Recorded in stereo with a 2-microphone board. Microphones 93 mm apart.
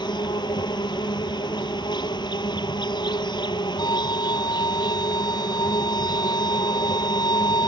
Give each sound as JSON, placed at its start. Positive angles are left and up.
{"t": 0.0, "sound": "an insect", "side_deg": 55}
{"t": 3.8, "sound": "a violin", "side_deg": 50}